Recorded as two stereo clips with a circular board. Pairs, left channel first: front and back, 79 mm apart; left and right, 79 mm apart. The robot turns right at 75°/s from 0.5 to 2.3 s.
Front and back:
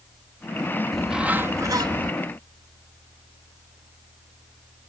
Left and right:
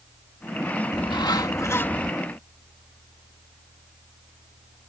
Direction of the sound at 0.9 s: 85° left.